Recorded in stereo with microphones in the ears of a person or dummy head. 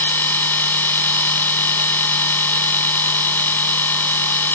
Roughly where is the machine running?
Centre.